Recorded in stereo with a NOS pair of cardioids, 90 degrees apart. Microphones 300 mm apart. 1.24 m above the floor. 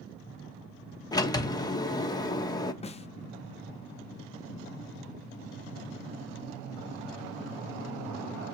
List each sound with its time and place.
1.1 s a sliding door: 15° left, 1.2 m
2.8 s a snare drum: 20° left, 0.8 m